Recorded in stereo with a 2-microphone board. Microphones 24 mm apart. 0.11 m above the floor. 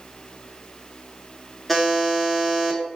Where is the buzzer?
Centre (ahead or behind), 0.7 m.